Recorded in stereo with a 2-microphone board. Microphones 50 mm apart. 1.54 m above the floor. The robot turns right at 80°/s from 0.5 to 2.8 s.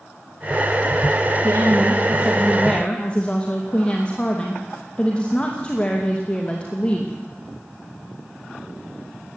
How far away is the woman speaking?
About 2.5 m.